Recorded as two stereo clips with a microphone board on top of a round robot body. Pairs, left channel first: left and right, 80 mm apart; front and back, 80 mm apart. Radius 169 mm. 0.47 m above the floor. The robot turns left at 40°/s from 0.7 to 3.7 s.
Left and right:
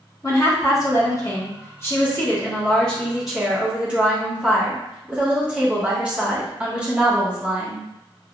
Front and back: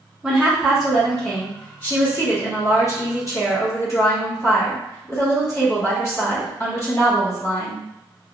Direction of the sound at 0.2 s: 100° left.